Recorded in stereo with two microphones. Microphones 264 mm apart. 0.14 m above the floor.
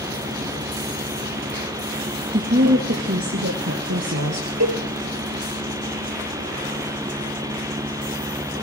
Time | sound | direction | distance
2.3 | a woman speaking | 30° right (ahead or behind) | 1.4 m
4.6 | a cowbell | 65° right (ahead or behind) | 3 m